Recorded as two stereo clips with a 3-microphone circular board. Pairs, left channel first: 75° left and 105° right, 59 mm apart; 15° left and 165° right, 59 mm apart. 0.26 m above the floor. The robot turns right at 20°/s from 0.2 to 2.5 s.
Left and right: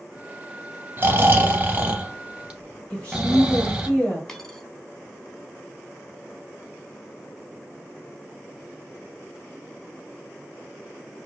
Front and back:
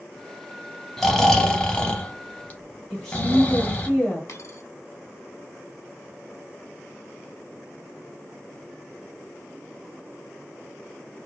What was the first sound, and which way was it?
Snoring, 70° right.